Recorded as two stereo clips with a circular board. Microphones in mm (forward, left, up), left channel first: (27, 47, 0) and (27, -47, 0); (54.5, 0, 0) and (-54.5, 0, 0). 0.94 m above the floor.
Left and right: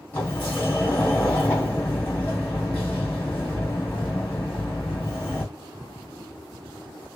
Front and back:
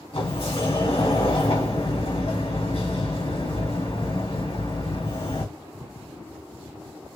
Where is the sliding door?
20° left, 3 m.